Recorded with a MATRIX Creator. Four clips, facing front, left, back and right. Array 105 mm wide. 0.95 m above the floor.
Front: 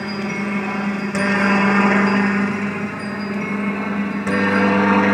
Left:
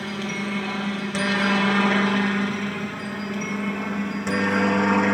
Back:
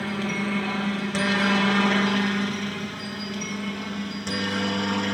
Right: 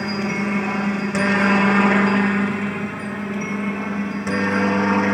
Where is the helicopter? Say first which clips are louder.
Right 6 dB, front 4 dB; 60° right; by 5.2 s 5° right.